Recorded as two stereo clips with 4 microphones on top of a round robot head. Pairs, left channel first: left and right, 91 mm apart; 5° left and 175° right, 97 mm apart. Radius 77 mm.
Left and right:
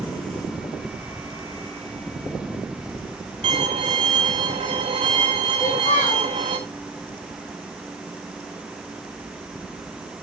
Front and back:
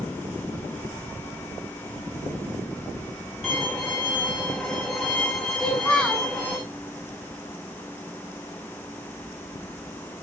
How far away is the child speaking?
About 7.5 m.